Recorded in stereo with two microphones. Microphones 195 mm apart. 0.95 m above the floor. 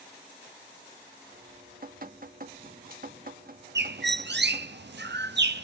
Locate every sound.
1.3 s dripping: 50° right (ahead or behind), 0.7 m
3.8 s a bird: 65° right (ahead or behind), 0.5 m